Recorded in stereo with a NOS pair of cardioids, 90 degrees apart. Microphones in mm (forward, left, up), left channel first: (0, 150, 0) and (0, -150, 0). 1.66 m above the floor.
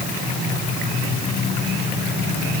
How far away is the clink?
I don't hear a clink.